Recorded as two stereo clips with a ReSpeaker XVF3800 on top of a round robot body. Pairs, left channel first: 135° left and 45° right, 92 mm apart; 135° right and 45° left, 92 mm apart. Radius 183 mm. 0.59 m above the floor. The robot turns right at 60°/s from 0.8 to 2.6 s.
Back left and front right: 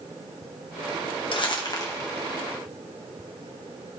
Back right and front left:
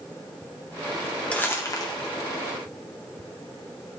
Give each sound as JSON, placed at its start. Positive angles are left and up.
{"t": 1.3, "sound": "crumpling", "azimuth_deg": 150, "distance_m": 1.4}